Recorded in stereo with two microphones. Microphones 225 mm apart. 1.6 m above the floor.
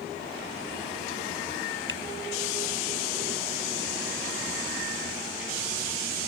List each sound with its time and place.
1.9 s a finger snap: 60° left (ahead or behind)